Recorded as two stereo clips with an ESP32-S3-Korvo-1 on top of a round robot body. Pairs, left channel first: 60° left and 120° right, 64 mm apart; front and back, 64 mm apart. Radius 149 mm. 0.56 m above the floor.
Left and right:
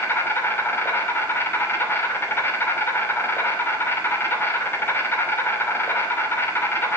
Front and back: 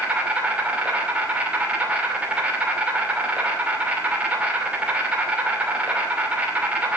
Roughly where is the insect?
Behind left.